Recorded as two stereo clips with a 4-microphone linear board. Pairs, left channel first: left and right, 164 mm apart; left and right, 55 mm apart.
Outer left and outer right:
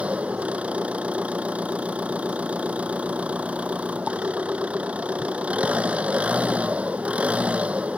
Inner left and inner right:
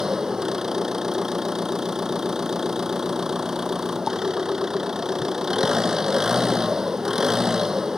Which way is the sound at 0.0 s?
10° right (ahead or behind).